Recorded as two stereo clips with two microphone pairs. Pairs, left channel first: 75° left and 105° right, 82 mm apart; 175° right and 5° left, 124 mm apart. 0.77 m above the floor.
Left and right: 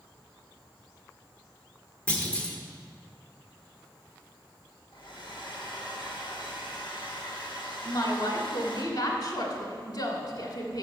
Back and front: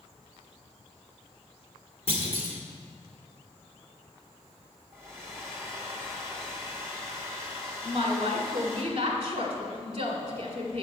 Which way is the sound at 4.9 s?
70° left.